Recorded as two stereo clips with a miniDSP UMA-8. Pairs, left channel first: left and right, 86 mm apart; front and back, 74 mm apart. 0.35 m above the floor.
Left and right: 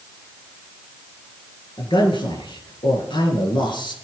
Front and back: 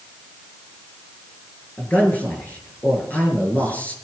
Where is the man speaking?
70° left, 5.5 m.